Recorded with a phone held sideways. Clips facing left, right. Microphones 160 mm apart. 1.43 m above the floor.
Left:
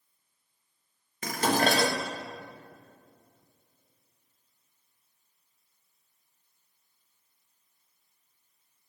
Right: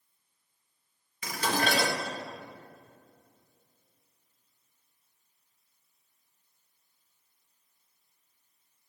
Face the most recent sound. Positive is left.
turn(degrees=50)  # may be behind; listen again after turning